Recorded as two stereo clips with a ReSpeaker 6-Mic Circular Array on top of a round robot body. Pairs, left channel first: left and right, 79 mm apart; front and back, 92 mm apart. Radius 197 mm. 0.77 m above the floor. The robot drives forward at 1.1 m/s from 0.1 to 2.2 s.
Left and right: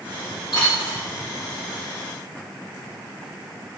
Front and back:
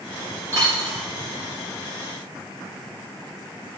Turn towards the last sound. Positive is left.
turn(degrees=160)